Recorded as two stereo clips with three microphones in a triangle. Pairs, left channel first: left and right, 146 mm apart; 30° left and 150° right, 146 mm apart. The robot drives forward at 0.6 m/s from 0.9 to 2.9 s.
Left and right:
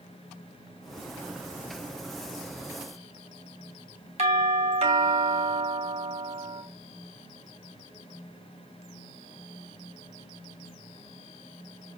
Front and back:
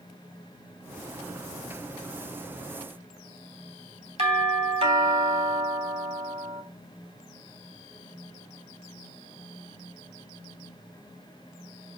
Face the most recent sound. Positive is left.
turn(degrees=-120)